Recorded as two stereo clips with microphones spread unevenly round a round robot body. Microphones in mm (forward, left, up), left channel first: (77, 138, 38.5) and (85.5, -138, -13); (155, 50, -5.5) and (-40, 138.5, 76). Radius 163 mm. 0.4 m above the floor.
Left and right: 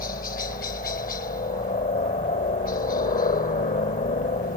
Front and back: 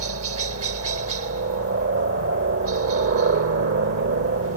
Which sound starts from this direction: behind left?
A helicopter, at 0.0 s.